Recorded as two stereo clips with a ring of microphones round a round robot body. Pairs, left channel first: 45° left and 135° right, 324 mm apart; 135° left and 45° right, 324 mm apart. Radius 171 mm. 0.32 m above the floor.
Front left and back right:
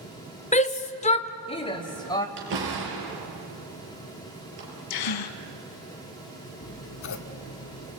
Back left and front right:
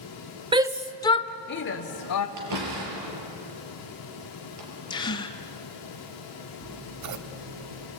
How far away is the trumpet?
I don't hear a trumpet.